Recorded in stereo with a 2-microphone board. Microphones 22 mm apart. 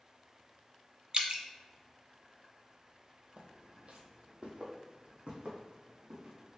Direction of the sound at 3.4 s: 55° right (ahead or behind).